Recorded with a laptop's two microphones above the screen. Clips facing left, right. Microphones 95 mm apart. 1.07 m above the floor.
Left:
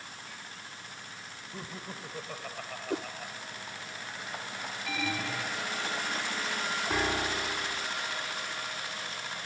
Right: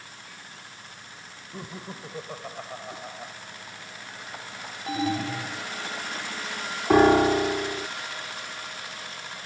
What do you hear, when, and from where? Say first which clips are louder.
1.5 s laughter: right 4 dB; 15° right (ahead or behind); by 3.3 s 20° right (ahead or behind)
2.9 s a whoosh: left 6 dB; 80° left
4.9 s an alarm: right 8 dB; 30° right (ahead or behind)
6.9 s a piano: right 16 dB; 60° right (ahead or behind)